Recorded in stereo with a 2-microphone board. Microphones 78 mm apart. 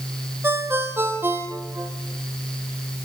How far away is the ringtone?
About 2 m.